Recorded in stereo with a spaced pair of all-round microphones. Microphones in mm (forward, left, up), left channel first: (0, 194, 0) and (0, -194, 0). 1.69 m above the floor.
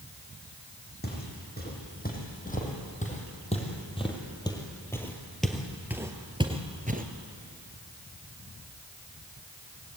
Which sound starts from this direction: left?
Footsteps, at 1.0 s.